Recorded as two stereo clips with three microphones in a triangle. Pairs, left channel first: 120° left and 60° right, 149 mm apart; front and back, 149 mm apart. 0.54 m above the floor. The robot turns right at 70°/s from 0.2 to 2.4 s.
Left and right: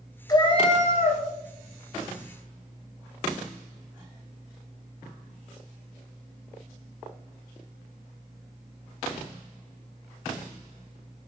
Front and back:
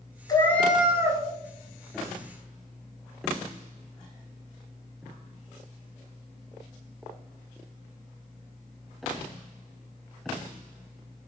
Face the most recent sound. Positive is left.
turn(degrees=-155)